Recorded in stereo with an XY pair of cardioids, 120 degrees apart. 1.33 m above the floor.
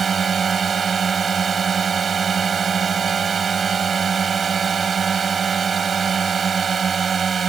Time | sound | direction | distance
0.0 | a drone | 35° right | ?